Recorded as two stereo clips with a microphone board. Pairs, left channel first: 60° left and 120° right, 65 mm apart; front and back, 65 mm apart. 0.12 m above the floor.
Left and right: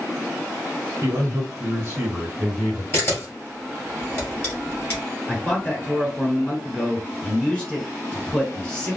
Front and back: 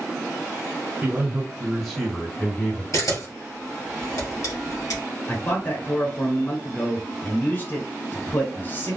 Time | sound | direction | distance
1.0 | a man speaking | 140° right | 1.6 m
2.9 | a camera shutter | 15° left | 1.9 m
5.3 | a man speaking | straight ahead | 1.1 m